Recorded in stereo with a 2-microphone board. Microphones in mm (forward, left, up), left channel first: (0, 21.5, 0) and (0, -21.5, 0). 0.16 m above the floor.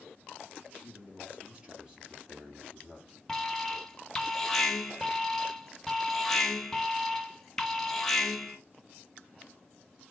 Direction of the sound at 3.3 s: 10° left (ahead or behind).